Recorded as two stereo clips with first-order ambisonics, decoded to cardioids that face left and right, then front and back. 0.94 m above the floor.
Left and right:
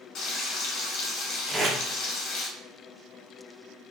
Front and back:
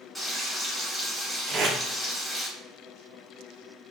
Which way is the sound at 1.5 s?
145° right.